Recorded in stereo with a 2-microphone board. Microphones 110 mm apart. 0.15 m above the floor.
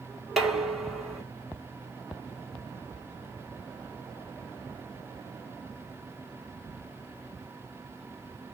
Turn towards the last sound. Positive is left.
turn(degrees=0)  # may be behind; listen again after turning